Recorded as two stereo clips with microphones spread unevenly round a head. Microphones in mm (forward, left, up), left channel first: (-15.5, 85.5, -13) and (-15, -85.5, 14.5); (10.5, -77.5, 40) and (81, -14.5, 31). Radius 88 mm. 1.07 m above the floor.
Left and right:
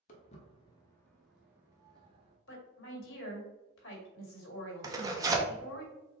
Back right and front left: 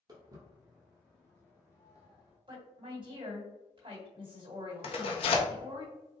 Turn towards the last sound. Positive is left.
turn(degrees=-165)